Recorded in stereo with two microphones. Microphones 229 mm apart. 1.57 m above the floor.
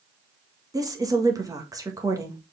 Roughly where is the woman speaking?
Centre.